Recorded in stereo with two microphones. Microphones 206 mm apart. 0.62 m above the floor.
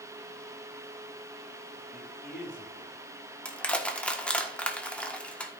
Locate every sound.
1.9 s a man speaking: 45° left (ahead or behind), 2.5 m
3.5 s crushing: 5° left (ahead or behind), 1.2 m